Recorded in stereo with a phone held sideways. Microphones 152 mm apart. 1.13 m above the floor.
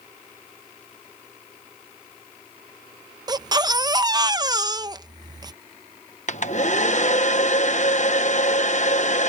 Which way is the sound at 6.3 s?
50° left (ahead or behind).